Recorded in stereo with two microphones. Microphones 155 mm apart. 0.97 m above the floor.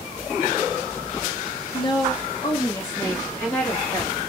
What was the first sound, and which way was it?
A woman speaking, 35° left (ahead or behind).